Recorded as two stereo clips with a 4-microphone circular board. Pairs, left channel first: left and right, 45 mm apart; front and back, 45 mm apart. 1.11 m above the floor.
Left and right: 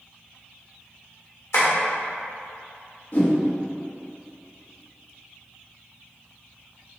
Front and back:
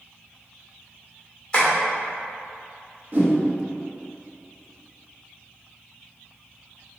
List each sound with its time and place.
1.5 s tapping: 70° left, 1.6 m
3.1 s a whoosh: 135° left, 0.9 m